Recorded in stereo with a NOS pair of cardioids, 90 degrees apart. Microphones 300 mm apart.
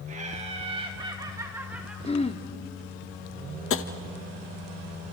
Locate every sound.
0.1 s laughter: 25° right, 2.5 m; by 1.9 s 5° right, 1.9 m
2.0 s throat clearing: 20° left, 1.3 m
3.7 s tapping: 45° left, 1.1 m